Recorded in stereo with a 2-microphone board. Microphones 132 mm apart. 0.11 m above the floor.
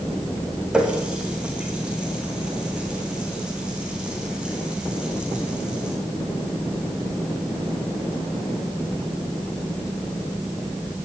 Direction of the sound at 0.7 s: 10° right (ahead or behind).